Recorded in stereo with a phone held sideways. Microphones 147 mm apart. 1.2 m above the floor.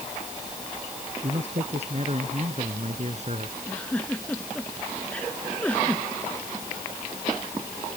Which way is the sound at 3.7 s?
10° left (ahead or behind).